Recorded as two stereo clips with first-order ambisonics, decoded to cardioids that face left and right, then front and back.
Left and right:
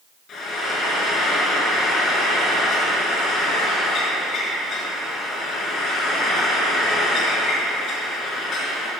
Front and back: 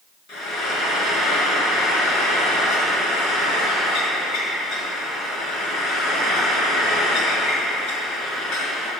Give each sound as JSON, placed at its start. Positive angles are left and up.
{"t": 0.3, "sound": "frying", "azimuth_deg": 35, "distance_m": 4.0}